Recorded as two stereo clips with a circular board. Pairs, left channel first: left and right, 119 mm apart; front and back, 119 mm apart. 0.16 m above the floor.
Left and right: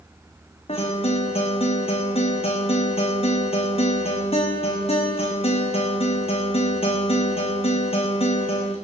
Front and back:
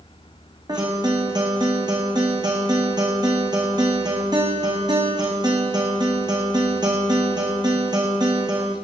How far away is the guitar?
About 2.5 m.